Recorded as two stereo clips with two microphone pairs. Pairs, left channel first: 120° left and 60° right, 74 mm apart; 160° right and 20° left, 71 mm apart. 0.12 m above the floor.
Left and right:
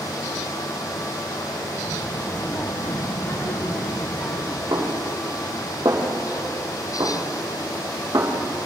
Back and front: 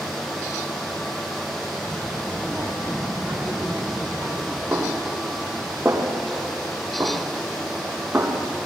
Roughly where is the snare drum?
Ahead right.